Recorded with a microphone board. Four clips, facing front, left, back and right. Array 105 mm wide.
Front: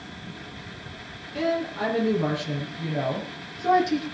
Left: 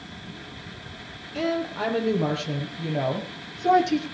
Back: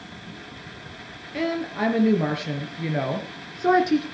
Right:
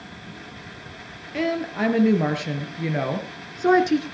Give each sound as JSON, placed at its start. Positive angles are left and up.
{"t": 1.3, "sound": "a woman speaking", "azimuth_deg": -120, "distance_m": 5.5}